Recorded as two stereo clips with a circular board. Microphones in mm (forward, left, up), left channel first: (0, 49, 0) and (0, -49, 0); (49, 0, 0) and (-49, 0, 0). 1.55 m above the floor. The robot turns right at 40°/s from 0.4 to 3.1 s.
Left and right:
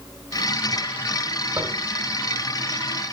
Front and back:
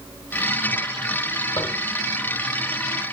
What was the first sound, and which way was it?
Tapping, 35° right.